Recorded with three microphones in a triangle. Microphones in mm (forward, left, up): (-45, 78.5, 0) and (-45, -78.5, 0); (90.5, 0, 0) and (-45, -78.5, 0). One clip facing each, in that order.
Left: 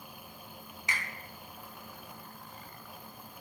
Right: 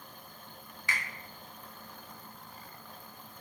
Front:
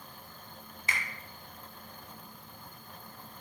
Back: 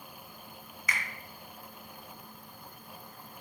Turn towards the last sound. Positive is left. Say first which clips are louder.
# even, even
turn(degrees=45)